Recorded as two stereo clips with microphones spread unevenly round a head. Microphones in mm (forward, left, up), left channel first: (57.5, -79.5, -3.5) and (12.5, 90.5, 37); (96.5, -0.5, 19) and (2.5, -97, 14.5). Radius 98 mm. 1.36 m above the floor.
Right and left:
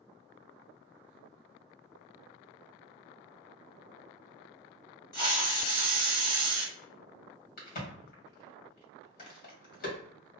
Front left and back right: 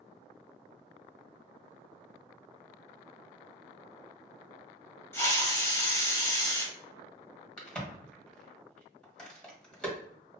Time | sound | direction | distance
5.1 | a hiss | 5° right | 1.3 m
7.6 | a crack | 40° right | 1.7 m